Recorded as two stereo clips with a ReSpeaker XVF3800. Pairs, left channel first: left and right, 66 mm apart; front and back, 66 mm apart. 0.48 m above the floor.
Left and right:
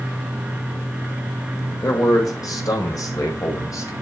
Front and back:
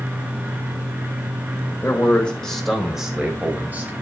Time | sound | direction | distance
1.8 | a man speaking | 55° left | 1.6 m